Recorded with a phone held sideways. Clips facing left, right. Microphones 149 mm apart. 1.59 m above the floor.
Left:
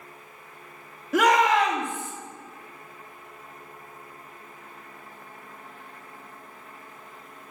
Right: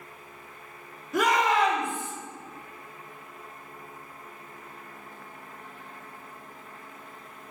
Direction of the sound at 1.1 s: 85° left.